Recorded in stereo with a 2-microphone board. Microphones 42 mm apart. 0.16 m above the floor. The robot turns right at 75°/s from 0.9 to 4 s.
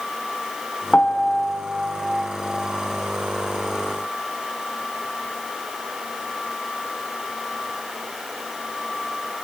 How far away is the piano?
About 1.2 m.